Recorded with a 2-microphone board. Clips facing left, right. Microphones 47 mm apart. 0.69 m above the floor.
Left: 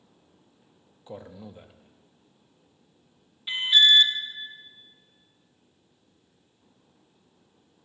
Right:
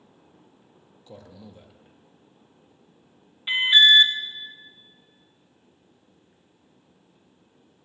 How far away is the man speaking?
About 0.5 m.